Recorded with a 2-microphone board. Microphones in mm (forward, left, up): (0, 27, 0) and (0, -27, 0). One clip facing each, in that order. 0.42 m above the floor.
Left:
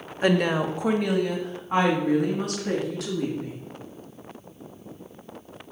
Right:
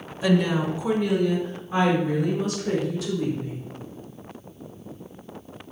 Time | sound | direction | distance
0.2 | a woman speaking | 40° left (ahead or behind) | 1.0 m